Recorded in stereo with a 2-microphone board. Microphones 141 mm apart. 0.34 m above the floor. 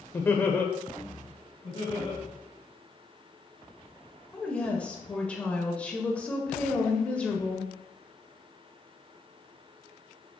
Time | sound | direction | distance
0.1 | laughter | 15° left (ahead or behind) | 0.8 m
1.6 | laughter | 40° left (ahead or behind) | 3 m
4.3 | a woman speaking | 10° left (ahead or behind) | 1.3 m